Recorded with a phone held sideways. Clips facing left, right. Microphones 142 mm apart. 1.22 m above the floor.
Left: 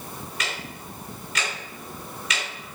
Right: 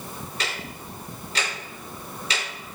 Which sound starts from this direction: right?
Ticking, at 0.4 s.